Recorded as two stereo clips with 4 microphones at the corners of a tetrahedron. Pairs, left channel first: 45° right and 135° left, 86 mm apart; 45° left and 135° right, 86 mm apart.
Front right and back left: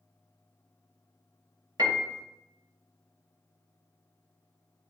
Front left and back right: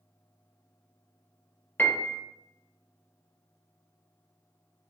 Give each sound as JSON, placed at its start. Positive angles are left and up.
{"t": 1.8, "sound": "a piano", "azimuth_deg": 110, "distance_m": 0.6}